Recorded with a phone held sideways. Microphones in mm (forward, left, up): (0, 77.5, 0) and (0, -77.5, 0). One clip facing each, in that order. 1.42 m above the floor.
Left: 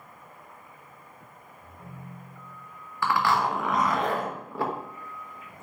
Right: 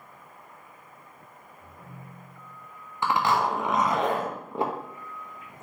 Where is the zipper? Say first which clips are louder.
Even; 20° right (ahead or behind), 0.7 m.